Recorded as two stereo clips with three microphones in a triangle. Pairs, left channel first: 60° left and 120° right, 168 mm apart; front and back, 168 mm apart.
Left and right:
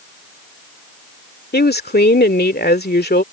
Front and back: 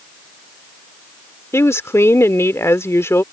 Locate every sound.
1.5 s a woman speaking: 75° left